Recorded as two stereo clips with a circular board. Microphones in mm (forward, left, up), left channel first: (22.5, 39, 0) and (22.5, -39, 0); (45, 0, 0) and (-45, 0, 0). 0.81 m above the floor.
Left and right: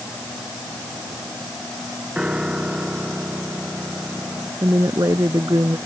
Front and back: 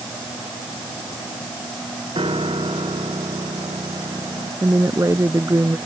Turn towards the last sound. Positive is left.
turn(degrees=-125)